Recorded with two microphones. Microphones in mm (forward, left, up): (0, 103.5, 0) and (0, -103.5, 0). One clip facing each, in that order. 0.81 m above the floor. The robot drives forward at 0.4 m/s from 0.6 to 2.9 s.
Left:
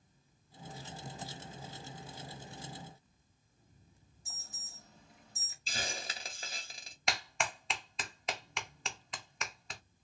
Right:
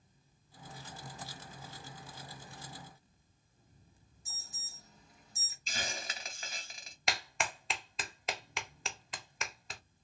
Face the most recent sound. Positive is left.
turn(degrees=0)  # may be behind; listen again after turning